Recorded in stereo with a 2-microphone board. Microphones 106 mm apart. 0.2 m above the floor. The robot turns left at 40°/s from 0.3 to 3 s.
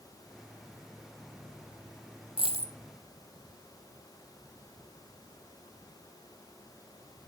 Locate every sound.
2.4 s a dropped coin: 60° right (ahead or behind), 0.9 m; by 2.7 s 75° right (ahead or behind), 0.9 m